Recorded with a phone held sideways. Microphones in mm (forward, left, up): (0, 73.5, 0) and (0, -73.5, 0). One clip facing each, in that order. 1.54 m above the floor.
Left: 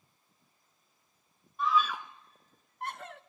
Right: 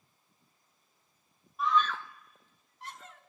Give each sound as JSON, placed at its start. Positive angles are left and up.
{"t": 1.6, "sound": "a scream", "side_deg": 0, "distance_m": 1.2}